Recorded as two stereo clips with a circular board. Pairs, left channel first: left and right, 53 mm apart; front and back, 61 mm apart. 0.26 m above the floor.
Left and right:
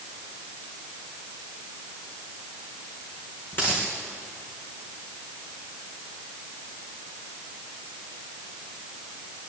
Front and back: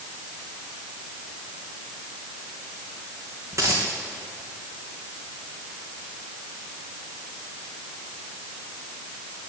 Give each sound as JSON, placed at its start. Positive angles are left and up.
{"t": 3.5, "sound": "a dropped coin", "azimuth_deg": 140, "distance_m": 3.5}